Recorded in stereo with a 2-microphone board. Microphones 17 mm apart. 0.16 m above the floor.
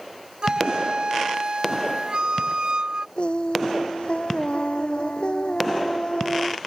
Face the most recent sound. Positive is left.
turn(degrees=75)  # may be behind; listen again after turning